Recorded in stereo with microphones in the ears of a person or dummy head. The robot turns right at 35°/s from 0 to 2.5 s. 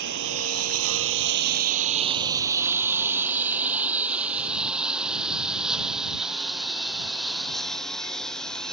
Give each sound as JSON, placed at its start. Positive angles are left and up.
{"t": 0.0, "sound": "a lawn mower", "side_deg": -65}